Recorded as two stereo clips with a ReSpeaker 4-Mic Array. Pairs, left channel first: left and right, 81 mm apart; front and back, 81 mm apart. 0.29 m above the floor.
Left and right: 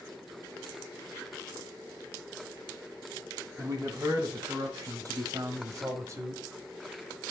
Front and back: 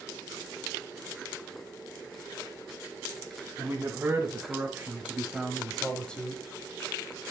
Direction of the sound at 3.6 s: 130° right.